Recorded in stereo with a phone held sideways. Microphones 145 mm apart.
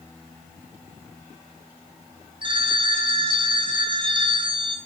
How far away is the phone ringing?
About 0.6 m.